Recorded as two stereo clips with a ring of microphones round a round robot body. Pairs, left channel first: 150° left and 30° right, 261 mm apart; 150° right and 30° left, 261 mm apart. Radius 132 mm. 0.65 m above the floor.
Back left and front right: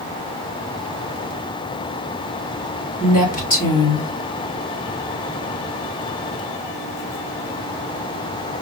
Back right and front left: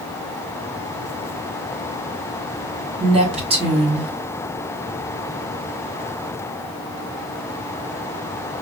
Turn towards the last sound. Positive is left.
turn(degrees=95)